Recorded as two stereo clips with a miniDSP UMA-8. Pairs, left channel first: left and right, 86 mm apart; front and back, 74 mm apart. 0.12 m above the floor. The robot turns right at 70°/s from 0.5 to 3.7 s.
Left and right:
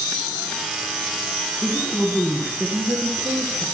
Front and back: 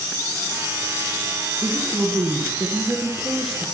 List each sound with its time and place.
1.6 s a woman speaking: 130° left, 1.5 m; by 3.6 s 85° right, 1.5 m